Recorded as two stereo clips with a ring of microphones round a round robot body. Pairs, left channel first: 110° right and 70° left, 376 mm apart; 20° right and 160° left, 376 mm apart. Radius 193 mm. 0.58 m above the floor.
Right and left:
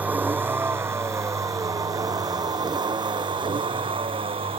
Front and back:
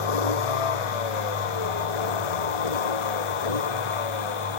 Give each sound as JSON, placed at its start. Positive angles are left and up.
{"t": 0.0, "sound": "a vehicle", "azimuth_deg": -20}